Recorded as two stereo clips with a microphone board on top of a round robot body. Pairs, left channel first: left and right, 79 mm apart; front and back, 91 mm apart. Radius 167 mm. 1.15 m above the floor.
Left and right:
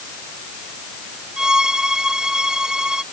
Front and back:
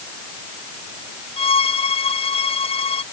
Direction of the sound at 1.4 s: 10° right.